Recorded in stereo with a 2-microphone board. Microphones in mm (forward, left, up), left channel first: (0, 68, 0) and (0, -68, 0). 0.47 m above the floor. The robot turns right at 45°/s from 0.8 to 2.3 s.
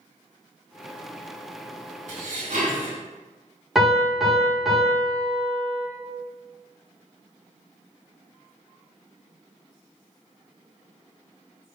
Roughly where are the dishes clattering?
Right.